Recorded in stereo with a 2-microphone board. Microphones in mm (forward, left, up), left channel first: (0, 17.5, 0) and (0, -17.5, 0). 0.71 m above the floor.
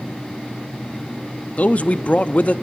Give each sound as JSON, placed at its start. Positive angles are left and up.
{"t": 1.6, "sound": "a man speaking", "side_deg": 45, "distance_m": 0.6}